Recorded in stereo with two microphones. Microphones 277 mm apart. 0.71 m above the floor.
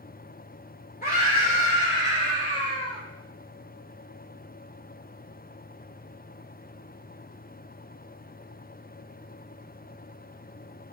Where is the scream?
30° left (ahead or behind), 3 m; by 3.0 s 20° left (ahead or behind), 4 m.